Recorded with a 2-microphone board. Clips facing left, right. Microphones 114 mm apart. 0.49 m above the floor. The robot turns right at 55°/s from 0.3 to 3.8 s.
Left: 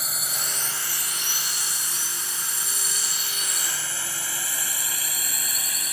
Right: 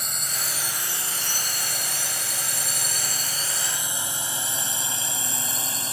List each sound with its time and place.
0.0 s a drone: 5° left (ahead or behind); by 5.9 s 30° right (ahead or behind)